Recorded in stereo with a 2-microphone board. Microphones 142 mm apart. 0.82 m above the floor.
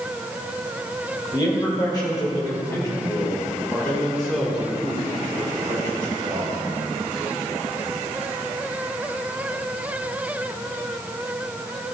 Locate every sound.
1.3 s a man speaking: 35° left (ahead or behind), 3.5 m; by 6.5 s 35° right (ahead or behind), 1.9 m